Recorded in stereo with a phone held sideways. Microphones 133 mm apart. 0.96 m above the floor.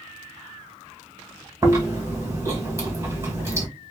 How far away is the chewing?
About 1.6 m.